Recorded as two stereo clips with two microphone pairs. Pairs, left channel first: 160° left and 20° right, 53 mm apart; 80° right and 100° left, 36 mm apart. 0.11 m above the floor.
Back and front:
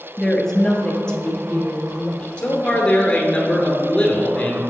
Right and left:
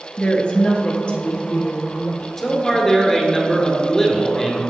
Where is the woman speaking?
120° right, 1.4 m; by 2.3 s 135° right, 3 m.